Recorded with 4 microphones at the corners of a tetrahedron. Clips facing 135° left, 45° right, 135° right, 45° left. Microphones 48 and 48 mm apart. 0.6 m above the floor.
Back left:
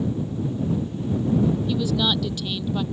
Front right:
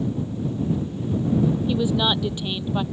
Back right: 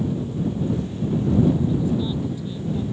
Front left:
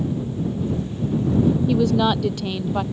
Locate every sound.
1.7 s a woman speaking: 25° left